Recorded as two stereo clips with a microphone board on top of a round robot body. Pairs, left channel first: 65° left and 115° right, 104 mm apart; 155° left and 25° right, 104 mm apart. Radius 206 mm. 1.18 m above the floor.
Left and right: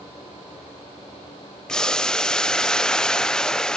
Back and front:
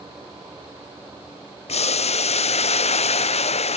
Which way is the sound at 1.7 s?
150° left.